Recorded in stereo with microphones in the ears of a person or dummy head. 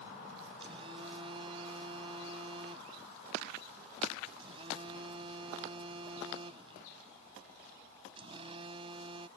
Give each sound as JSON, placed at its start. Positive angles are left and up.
{"t": 0.6, "sound": "a phone buzzing", "side_deg": -30}